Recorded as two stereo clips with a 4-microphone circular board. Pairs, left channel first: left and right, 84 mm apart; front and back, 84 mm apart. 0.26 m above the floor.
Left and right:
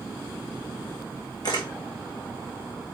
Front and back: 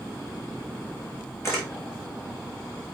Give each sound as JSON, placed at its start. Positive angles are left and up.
{"t": 1.4, "sound": "a camera shutter", "azimuth_deg": 55, "distance_m": 3.5}